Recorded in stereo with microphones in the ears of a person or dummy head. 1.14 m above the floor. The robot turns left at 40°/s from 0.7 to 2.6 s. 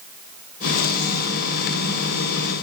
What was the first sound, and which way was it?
Only background noise.